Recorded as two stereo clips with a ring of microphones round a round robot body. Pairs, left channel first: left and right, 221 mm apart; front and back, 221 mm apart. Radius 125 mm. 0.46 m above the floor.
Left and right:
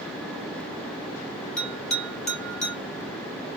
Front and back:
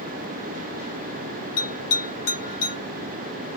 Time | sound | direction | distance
1.6 | a bell | 5° left | 2.5 m